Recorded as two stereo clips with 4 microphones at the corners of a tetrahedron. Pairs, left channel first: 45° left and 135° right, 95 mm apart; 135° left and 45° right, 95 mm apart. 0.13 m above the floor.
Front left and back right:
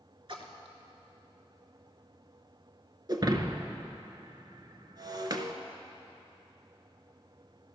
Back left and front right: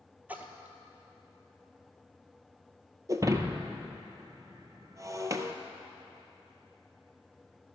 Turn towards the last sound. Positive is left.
turn(degrees=-95)